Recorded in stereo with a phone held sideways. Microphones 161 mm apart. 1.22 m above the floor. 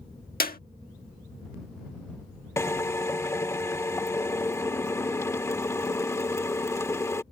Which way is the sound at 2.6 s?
20° left (ahead or behind).